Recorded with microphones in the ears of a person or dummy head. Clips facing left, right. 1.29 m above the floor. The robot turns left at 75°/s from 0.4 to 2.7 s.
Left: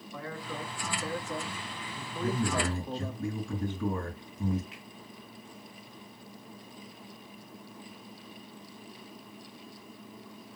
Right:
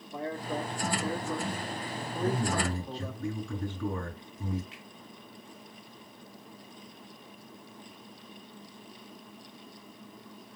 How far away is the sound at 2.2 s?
About 9 m.